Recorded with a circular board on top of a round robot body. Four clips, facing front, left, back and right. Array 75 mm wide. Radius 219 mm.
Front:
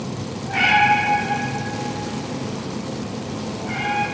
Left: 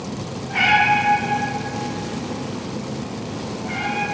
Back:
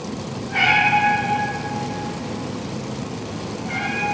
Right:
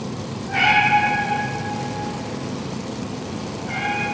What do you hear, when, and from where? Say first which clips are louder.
0.5 s a cat meowing: even, front 2 dB; 5° right, 1.0 m